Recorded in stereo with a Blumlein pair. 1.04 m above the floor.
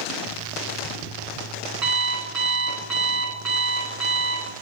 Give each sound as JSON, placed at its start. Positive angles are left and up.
{"t": 0.3, "sound": "an alarm clock", "azimuth_deg": -35, "distance_m": 8.0}